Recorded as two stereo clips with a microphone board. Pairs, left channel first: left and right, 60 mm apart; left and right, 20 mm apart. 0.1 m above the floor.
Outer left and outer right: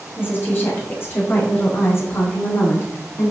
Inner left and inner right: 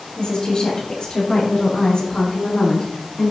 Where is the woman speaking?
35° left (ahead or behind), 6 m; by 3.3 s 55° left (ahead or behind), 5.5 m.